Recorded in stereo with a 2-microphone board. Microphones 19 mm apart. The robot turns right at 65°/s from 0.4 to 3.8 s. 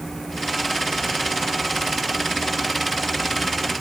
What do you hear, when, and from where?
Only background noise.